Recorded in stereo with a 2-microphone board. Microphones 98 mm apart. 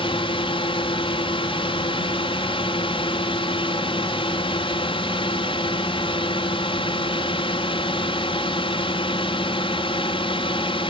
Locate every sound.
0.0 s a drone: 65° left (ahead or behind)